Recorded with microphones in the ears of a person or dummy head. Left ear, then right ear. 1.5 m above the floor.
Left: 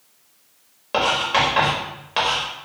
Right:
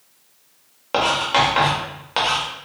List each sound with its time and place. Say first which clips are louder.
0.9 s writing: right 1 dB; 10° right (ahead or behind), 0.5 m